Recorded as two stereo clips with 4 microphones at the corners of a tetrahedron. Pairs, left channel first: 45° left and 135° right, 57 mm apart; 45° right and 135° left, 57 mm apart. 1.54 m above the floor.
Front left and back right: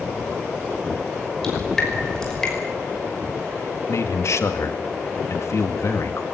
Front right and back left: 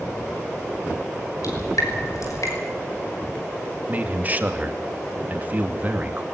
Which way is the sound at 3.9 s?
75° left.